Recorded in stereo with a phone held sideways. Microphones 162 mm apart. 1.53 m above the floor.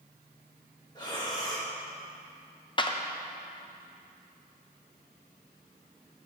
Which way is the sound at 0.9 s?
25° left (ahead or behind).